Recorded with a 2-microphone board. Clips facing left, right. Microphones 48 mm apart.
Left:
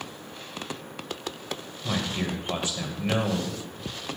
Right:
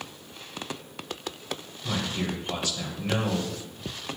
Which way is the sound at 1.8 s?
25° left (ahead or behind).